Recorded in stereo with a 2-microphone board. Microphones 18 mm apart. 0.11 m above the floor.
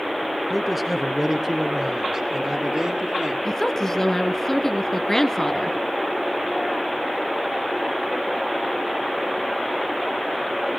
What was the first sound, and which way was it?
A man speaking, 5° left (ahead or behind).